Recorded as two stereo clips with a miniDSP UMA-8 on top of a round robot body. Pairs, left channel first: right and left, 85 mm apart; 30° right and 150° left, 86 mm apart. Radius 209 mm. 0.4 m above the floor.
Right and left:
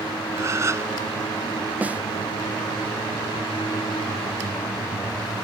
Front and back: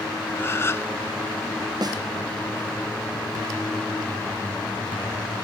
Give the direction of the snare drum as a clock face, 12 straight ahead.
7 o'clock.